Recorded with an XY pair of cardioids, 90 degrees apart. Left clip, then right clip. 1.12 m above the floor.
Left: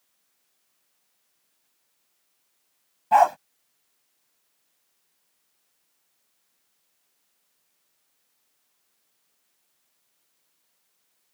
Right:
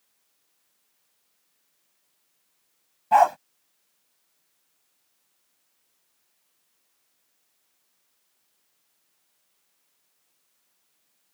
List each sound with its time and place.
3.1 s a dog barking: 5° left